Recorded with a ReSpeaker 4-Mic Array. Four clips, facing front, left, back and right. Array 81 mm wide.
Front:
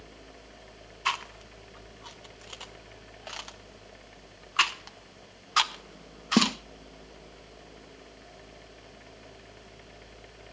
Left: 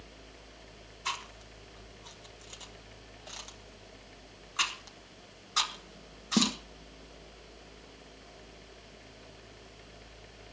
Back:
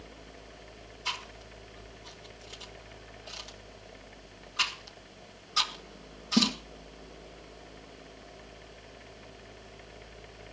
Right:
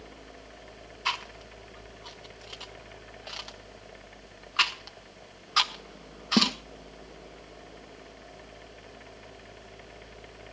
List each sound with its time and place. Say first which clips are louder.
1.1 s chewing: right 5 dB, front 8 dB; 25° right, 1.1 m